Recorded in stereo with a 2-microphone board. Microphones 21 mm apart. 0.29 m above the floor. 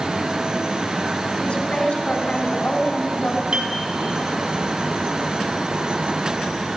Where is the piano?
55° right (ahead or behind), 2.5 m.